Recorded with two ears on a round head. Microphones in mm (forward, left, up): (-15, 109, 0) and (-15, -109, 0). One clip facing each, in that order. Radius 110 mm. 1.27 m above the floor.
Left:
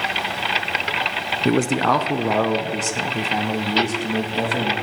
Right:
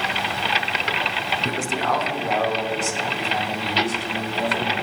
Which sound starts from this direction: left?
A man speaking, at 1.4 s.